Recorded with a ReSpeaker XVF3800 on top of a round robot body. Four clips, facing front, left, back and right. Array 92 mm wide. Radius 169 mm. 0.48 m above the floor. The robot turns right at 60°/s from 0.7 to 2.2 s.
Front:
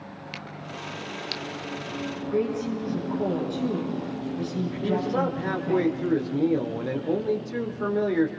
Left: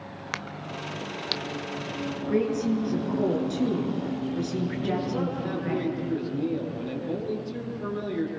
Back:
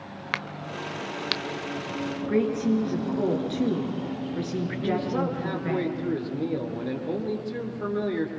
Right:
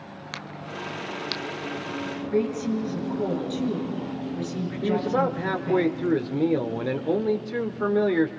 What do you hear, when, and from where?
0.3 s a crack: 155° left, 1.3 m; by 1.4 s 160° right, 1.3 m
2.3 s a woman speaking: 155° left, 9 m
4.8 s a man speaking: 75° right, 2.5 m